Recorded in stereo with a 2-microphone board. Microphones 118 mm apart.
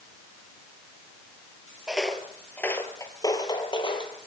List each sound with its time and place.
1.9 s footsteps: 5° right (ahead or behind), 2 m; by 4.1 s 45° left (ahead or behind), 3 m